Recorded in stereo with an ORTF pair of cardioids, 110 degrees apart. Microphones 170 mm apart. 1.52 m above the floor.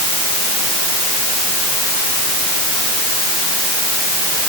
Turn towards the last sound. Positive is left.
No sound to turn to.